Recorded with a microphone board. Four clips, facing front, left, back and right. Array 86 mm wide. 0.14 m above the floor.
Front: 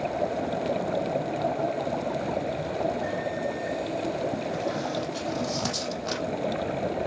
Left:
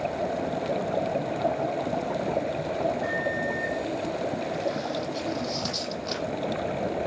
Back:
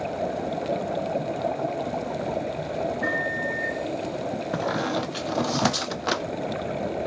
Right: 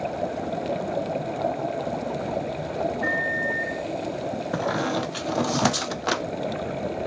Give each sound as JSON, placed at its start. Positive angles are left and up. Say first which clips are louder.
{"t": 3.0, "sound": "a microwave", "louder": "right 2 dB, back 2 dB", "azimuth_deg": -150, "distance_m": 5.0}
{"t": 4.5, "sound": "a squeak", "louder": "right 4 dB, back 3 dB", "azimuth_deg": -125, "distance_m": 0.9}